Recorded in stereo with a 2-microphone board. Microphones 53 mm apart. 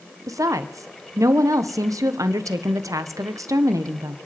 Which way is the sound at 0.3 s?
90° right.